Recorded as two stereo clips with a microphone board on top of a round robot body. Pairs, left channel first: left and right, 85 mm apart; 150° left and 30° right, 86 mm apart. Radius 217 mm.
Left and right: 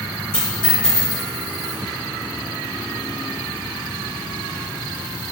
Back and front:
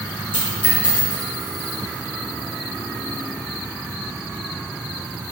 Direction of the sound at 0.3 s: 155° left.